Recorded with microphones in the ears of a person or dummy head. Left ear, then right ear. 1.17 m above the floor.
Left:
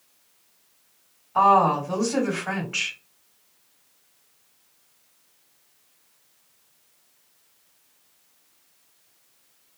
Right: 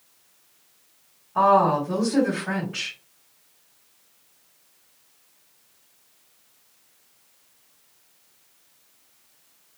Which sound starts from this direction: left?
A woman speaking, at 1.4 s.